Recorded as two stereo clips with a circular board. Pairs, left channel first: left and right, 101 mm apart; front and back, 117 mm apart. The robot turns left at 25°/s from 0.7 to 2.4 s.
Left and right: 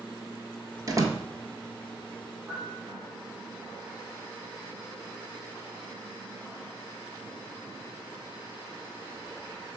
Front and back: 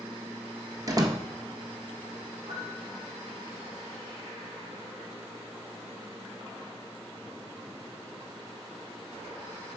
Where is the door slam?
130° right, 1.4 m; by 1.2 s 140° right, 1.4 m.